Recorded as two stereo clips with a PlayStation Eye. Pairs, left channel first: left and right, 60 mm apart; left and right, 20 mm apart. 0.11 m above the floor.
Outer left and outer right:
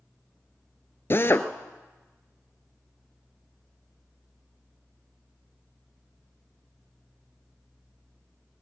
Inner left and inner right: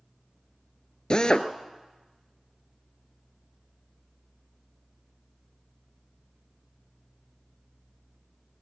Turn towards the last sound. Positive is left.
turn(degrees=40)  # may be behind; listen again after turning